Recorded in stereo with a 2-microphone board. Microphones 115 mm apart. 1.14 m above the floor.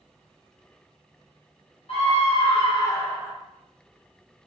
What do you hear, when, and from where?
1.9 s a scream: 55° left (ahead or behind), 1.0 m; by 3.3 s centre (ahead or behind), 0.6 m